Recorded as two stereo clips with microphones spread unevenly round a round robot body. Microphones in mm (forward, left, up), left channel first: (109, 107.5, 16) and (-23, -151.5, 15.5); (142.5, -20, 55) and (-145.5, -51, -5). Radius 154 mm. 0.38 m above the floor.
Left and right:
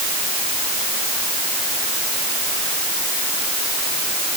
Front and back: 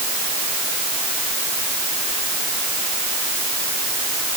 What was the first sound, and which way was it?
Only background noise.